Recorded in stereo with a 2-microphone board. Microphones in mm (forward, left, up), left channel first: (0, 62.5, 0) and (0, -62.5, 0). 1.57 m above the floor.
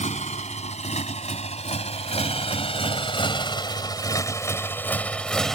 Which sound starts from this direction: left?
A motorcycle, at 0.0 s.